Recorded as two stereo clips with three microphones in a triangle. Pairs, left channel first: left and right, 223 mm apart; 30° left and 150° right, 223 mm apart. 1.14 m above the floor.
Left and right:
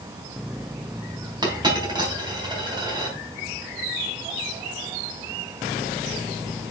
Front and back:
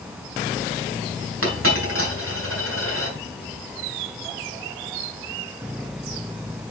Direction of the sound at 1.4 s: 160° right.